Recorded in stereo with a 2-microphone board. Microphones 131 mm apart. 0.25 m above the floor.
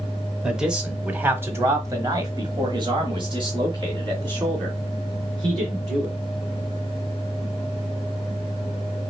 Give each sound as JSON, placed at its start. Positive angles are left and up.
{"t": 0.4, "sound": "a man speaking", "side_deg": -5, "distance_m": 1.4}